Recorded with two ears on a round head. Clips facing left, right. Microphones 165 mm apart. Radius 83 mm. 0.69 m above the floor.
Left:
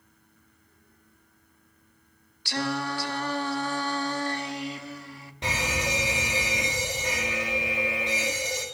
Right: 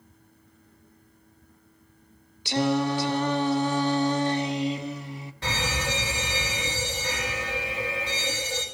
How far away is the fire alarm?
About 2.5 m.